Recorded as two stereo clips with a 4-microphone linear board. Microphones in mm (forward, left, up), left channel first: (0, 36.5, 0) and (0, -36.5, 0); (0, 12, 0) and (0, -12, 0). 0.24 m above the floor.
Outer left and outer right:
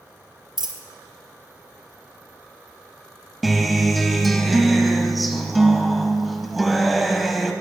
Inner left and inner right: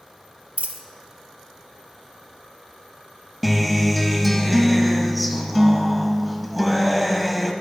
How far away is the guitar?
About 0.6 m.